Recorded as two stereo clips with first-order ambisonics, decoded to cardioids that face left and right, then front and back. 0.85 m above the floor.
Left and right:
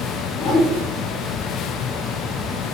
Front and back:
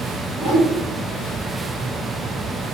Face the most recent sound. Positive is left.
turn(degrees=125)